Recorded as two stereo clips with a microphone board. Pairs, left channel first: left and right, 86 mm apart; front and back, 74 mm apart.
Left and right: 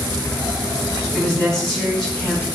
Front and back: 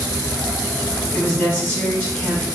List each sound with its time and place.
1.1 s a woman speaking: 20° left, 1.3 m